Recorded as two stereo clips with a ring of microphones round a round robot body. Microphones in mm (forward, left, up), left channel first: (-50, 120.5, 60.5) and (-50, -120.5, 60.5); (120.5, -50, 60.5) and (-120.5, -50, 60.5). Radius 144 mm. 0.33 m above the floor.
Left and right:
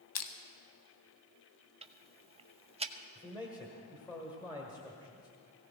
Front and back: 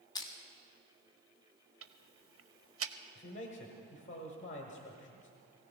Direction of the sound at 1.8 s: 155° right.